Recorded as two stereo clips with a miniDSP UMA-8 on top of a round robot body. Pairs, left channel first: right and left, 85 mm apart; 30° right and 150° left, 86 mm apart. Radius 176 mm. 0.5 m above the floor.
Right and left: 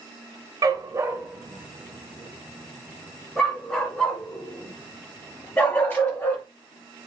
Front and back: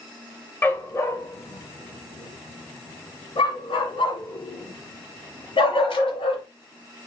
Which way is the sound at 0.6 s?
35° left.